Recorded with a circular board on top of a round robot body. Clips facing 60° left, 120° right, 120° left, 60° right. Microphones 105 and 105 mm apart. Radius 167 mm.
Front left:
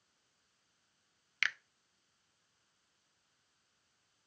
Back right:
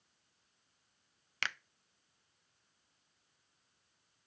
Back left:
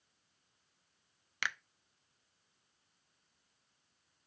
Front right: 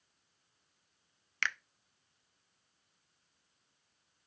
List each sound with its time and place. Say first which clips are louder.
1.4 s a finger snap: front left 2 dB, front right 2 dB; 165° right, 0.5 m